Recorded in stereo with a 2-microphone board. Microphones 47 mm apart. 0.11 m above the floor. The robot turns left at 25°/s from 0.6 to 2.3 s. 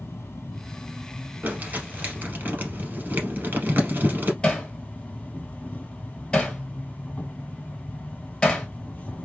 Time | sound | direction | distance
0.0 | an insect | 85° left | 1.5 m
1.4 | crumpling | 35° right (ahead or behind) | 1.8 m
4.4 | hammering | 20° left (ahead or behind) | 1.3 m